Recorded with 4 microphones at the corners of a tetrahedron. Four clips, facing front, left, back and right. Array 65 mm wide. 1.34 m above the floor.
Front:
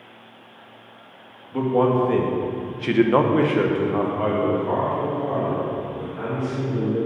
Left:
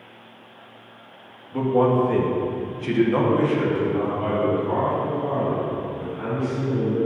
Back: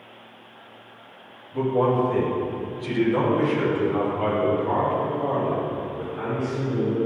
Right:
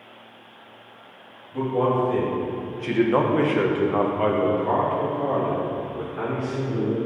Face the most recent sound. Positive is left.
turn(degrees=-105)